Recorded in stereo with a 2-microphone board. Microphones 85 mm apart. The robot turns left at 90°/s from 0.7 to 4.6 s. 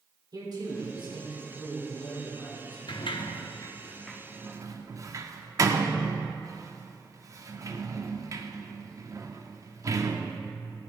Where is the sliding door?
65° left (ahead or behind), 0.5 m; by 10.4 s 40° right (ahead or behind), 0.5 m.